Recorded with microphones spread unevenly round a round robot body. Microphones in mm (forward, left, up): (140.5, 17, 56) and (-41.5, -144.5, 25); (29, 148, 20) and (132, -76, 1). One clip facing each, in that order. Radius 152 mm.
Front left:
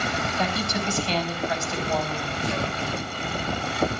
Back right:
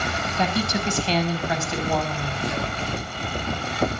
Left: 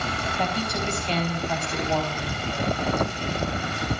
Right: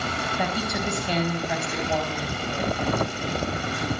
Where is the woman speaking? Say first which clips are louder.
Back right 5 dB, even; 150° right, 4 m.